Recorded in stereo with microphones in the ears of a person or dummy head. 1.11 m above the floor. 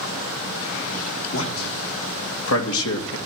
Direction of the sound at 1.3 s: 75° left (ahead or behind).